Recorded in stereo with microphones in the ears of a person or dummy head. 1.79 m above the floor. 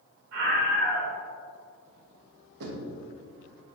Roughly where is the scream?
Right.